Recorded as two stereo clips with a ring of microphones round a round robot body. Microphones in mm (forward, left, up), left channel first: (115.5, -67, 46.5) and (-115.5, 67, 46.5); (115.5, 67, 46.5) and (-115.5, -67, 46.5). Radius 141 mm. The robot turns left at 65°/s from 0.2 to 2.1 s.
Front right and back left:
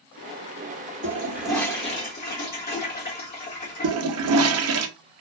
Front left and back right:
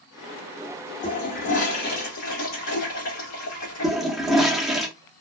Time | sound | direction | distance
1.0 | a toilet flushing | 90° left | 1.4 m
3.8 | a toilet flushing | 120° left | 0.5 m